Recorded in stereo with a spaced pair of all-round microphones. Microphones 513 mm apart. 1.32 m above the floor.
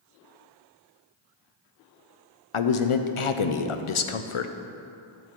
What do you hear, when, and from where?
2.5 s a man speaking: 70° left (ahead or behind), 0.6 m